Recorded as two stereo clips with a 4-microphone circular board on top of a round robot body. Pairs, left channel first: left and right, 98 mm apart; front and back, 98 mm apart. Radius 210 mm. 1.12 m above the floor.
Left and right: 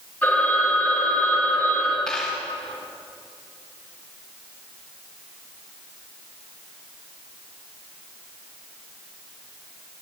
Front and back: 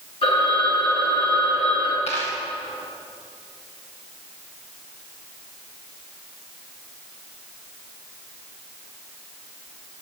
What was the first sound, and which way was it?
A phone ringing, 15° left.